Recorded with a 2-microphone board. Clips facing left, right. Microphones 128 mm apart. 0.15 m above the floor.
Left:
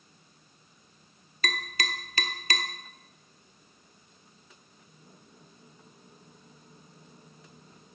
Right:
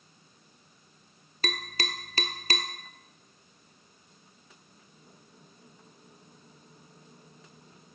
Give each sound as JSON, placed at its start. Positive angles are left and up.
{"t": 1.4, "sound": "tapping", "side_deg": -35, "distance_m": 0.7}